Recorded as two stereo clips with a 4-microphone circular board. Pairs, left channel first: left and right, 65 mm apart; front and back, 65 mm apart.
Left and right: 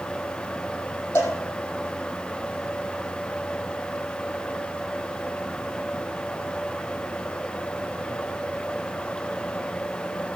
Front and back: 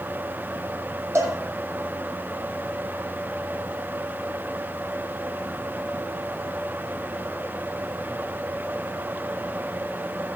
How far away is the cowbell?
About 4 m.